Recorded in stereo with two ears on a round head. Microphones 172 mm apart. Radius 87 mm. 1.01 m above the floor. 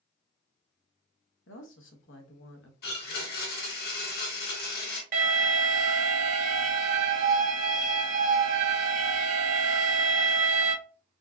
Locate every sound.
1.5 s a woman speaking: 75° left (ahead or behind), 0.9 m
2.8 s a blender: 60° left (ahead or behind), 1.8 m
5.1 s an alarm: 45° right (ahead or behind), 1.1 m